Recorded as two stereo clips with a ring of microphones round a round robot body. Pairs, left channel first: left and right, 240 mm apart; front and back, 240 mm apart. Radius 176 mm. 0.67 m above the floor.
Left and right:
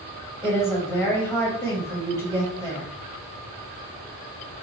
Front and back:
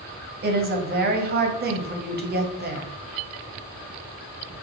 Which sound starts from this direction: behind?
A woman speaking, at 0.4 s.